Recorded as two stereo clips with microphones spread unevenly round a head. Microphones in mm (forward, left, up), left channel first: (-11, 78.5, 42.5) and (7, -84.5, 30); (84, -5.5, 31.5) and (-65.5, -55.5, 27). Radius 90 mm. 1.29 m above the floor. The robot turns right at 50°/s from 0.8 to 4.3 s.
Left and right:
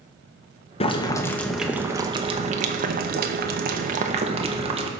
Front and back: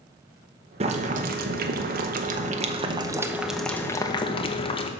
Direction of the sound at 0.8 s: 150° left.